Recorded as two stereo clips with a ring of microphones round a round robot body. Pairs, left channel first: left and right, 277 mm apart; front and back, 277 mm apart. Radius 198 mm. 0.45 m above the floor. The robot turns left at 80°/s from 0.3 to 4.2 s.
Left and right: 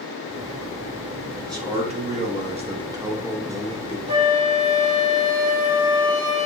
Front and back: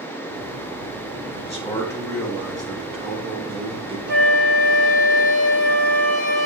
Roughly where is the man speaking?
Ahead.